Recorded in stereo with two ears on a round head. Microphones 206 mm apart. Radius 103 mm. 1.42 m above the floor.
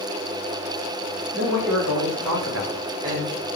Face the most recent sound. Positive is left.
turn(degrees=-15)  # may be behind; listen again after turning